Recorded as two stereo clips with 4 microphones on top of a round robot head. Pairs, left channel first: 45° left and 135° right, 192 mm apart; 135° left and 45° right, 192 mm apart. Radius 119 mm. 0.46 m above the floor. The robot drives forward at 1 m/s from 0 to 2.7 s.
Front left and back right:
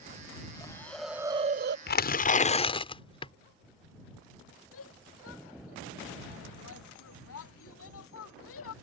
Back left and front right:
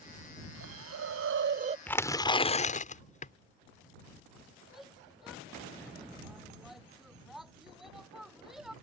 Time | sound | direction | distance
0.6 | a hiss | 30° right | ?
1.9 | tearing paper | 55° left | ?
4.7 | a shout | 45° left | ?